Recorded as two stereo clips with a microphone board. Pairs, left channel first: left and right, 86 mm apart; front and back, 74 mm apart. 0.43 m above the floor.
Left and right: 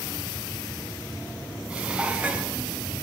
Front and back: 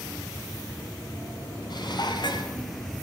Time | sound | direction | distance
1.7 | dishes clattering | 15° right | 2.5 m